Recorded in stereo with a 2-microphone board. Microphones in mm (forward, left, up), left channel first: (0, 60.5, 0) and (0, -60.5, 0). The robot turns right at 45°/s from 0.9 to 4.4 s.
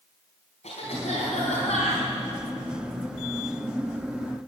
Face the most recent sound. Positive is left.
turn(degrees=-130)